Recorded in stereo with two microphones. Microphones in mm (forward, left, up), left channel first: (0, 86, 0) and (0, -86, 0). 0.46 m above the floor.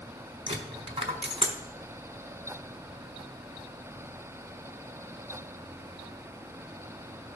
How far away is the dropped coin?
About 1.1 m.